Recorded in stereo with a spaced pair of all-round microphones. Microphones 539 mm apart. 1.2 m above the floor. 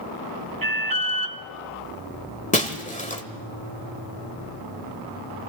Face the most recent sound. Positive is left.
turn(degrees=15)  # may be behind; listen again after turning